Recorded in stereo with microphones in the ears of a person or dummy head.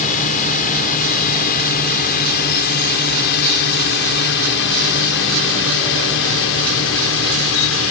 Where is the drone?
45° left (ahead or behind); by 7.9 s 70° left (ahead or behind).